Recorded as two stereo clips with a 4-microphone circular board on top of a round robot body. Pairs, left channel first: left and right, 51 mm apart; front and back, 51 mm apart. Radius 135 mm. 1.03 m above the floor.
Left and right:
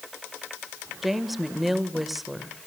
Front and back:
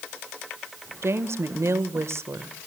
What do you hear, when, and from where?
1.0 s a woman speaking: 175° right, 1.4 m